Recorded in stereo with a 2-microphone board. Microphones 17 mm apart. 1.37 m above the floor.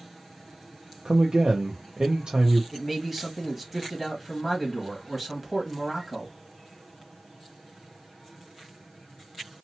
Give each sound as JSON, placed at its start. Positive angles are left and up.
{"t": 1.1, "sound": "a man speaking", "side_deg": -55, "distance_m": 0.6}
{"t": 2.7, "sound": "a man speaking", "side_deg": -5, "distance_m": 1.6}